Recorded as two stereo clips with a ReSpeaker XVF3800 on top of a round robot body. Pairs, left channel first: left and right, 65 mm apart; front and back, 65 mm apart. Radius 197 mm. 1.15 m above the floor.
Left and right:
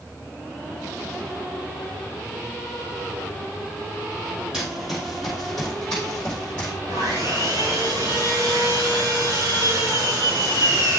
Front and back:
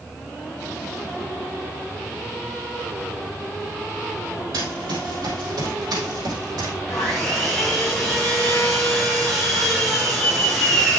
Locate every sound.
4.5 s running footsteps: 170° right, 2 m; by 6.7 s 165° left, 3 m
6.9 s sawing: 90° right, 5 m